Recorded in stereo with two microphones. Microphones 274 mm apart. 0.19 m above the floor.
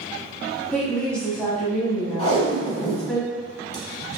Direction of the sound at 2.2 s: 25° left (ahead or behind).